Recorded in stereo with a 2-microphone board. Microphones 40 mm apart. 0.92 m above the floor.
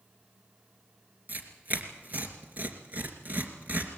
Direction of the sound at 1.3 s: 45° right (ahead or behind).